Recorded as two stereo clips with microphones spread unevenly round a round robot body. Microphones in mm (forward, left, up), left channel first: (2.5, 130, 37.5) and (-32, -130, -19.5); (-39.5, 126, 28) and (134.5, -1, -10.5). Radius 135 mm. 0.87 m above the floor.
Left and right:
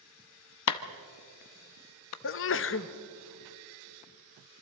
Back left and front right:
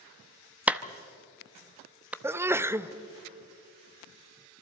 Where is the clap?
45° left, 0.7 m.